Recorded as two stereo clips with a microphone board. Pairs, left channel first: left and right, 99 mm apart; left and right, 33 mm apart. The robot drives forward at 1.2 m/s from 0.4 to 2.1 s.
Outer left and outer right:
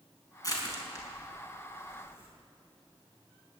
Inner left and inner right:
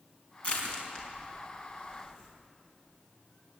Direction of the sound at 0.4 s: 35° left (ahead or behind).